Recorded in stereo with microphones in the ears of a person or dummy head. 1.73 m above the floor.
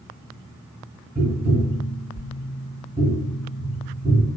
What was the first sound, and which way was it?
Tapping, 40° right (ahead or behind).